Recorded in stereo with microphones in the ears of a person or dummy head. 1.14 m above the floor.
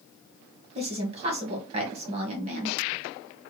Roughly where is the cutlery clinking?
No cutlery clinking in this recording.